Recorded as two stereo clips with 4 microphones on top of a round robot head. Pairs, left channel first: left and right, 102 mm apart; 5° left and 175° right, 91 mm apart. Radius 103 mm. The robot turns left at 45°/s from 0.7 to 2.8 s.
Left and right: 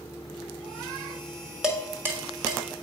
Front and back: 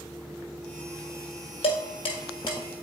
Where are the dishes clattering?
5° right, 1.3 m; by 2.6 s 50° right, 1.3 m.